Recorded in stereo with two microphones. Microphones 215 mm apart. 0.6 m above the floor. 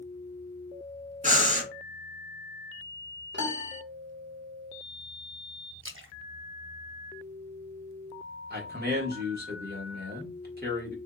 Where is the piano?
55° right (ahead or behind), 1.2 m.